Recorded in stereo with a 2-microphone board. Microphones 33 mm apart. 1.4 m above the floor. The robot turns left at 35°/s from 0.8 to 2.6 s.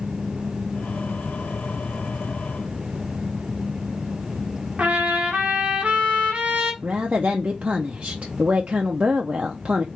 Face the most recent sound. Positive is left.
turn(degrees=-45)  # may be behind; listen again after turning